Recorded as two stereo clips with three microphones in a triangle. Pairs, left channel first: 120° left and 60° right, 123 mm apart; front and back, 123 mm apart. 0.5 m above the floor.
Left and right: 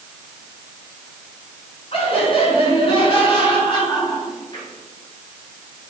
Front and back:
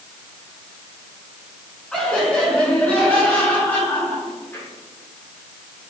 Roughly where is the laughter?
Left.